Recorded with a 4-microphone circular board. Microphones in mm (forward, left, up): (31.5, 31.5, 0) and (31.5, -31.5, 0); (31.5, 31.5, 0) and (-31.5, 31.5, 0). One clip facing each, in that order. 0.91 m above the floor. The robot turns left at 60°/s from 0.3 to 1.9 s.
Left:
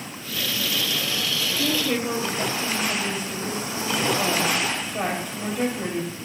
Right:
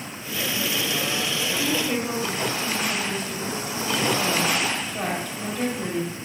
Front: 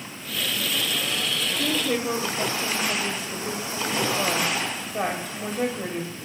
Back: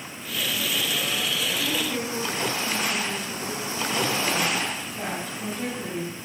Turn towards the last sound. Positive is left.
turn(degrees=20)